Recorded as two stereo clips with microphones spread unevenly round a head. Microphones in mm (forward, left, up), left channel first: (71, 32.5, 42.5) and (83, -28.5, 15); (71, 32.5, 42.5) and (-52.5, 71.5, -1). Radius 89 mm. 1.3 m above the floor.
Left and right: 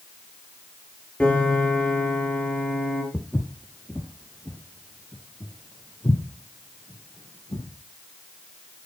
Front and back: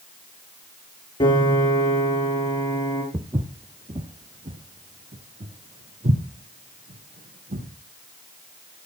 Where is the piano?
30° left, 6 m.